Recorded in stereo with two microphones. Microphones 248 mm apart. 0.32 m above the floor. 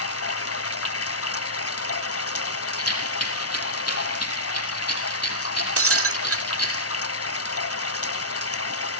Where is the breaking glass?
65° right (ahead or behind), 0.6 m.